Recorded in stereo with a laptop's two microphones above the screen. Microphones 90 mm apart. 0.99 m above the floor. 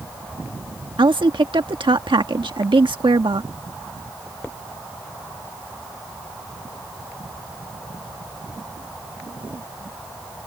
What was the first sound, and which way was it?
A woman speaking, 75° right (ahead or behind).